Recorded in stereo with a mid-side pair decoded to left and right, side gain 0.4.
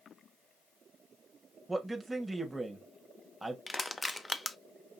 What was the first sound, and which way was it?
A man speaking, 15° right.